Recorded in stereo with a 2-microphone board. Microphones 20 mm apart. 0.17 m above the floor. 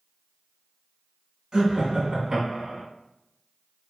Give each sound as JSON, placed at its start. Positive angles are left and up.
{"t": 1.5, "sound": "laughter", "side_deg": -30, "distance_m": 1.8}